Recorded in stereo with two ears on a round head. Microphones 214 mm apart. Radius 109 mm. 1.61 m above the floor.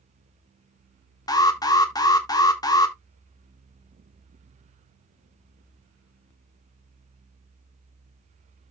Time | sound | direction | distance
1.3 | an alarm | 15° left (ahead or behind) | 1.6 m